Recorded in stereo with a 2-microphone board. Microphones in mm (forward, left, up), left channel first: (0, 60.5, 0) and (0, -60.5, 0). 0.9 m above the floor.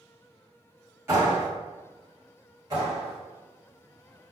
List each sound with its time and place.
1.1 s a clap: 25° right (ahead or behind), 1.3 m
2.7 s a clap: 35° right (ahead or behind), 1.5 m